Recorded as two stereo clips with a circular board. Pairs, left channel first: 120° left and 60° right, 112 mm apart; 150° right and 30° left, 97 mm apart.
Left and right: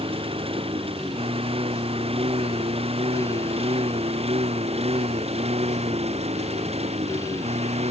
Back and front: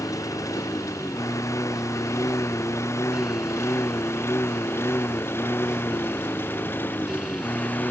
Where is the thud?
No thud in this recording.